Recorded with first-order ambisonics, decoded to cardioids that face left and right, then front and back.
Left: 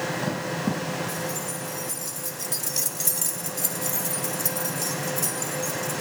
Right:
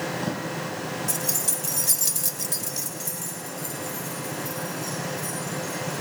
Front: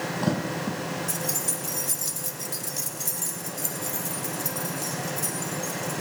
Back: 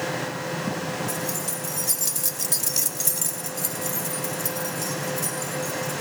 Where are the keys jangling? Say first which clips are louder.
Right 1 dB, back 1 dB; 90° right, 1.6 m; by 6.0 s 115° left, 4 m.